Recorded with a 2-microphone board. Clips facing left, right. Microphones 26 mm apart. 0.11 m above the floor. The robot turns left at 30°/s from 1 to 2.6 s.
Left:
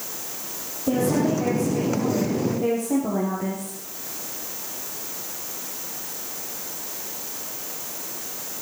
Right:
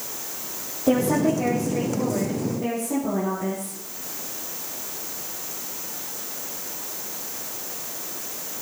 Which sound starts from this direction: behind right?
A woman speaking, at 0.9 s.